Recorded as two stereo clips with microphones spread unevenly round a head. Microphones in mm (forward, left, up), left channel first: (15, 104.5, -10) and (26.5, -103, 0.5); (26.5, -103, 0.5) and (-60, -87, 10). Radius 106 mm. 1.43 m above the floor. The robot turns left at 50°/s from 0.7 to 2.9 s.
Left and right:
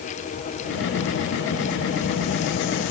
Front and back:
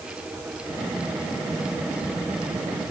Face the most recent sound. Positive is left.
No sound to turn to.